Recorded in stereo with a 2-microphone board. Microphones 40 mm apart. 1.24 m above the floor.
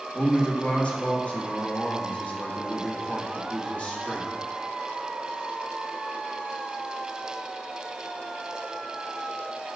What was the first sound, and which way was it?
A man speaking, 30° left (ahead or behind).